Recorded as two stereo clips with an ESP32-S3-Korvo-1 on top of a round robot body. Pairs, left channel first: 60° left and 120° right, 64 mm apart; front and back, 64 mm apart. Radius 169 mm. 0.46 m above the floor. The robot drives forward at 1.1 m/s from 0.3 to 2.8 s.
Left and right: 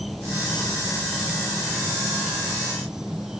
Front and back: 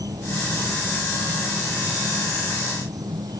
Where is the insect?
150° left; by 3.4 s 160° left.